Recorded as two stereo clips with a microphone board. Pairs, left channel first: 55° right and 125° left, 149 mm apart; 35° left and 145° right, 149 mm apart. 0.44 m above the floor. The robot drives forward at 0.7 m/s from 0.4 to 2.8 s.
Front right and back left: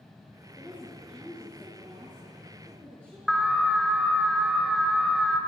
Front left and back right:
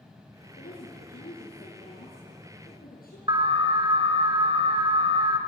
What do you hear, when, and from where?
0.6 s a woman speaking: 40° left, 6 m; by 3.2 s 50° left, 5 m
3.3 s an alarm: 145° right, 2 m